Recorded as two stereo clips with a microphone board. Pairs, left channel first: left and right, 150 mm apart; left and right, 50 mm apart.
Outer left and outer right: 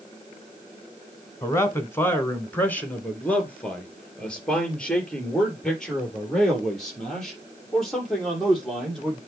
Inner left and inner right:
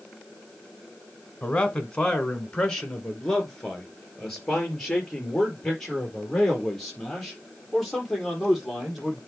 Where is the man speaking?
20° left (ahead or behind), 1.8 m; by 9.2 s centre (ahead or behind), 8 m.